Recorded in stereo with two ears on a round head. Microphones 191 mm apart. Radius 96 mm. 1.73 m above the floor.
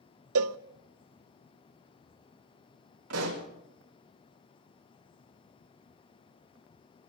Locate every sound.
0.3 s a cowbell: 75° right (ahead or behind), 0.6 m
3.1 s a pop: 85° right, 5 m